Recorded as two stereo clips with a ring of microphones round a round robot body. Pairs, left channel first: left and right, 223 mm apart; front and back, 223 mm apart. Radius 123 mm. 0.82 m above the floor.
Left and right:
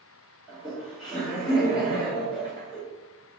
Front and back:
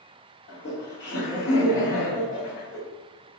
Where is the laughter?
Straight ahead, 1.3 m.